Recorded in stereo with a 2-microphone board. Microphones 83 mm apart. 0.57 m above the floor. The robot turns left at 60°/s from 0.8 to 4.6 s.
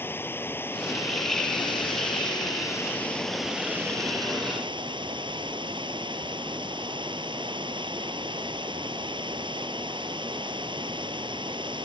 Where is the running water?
155° left; by 11.8 s 75° right.